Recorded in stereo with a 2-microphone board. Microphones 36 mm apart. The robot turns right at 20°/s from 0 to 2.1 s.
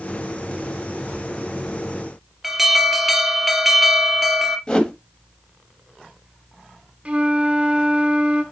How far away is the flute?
About 2 m.